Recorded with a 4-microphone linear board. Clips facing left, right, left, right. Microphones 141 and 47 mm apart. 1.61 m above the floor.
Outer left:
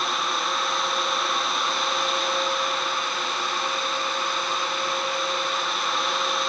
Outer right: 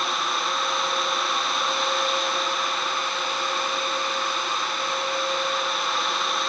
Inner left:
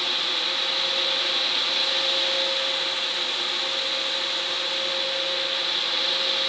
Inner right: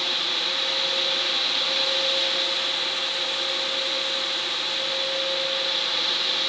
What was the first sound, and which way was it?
Only background noise.